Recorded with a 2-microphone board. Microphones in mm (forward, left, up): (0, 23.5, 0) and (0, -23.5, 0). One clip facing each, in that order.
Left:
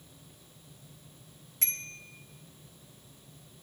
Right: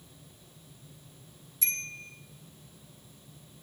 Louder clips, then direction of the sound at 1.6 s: Right 4 dB; 50° left (ahead or behind).